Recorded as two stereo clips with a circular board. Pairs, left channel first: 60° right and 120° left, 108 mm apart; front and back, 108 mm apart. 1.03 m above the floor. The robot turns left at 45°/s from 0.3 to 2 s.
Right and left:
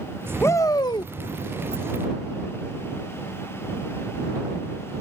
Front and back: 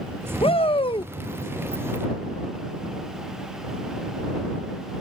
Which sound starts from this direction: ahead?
A shout, at 0.4 s.